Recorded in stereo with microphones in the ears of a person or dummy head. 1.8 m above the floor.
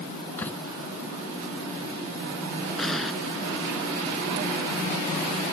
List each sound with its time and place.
0.4 s a door slam: 10° left (ahead or behind)
2.8 s an explosion: centre (ahead or behind)